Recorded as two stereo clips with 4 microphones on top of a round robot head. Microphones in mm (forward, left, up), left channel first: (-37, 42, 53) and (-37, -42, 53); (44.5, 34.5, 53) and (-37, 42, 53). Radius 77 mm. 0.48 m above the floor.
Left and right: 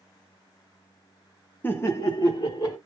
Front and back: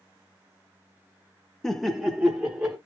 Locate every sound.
1.6 s laughter: 70° left, 0.7 m; by 2.8 s 105° left, 1.2 m